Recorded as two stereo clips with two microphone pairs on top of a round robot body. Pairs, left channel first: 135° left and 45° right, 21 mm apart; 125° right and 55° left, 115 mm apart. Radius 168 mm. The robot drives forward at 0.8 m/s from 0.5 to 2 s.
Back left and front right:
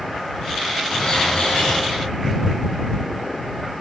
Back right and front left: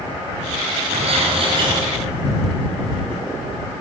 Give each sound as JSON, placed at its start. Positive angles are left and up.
{"t": 0.9, "sound": "a bird", "azimuth_deg": 80, "distance_m": 1.9}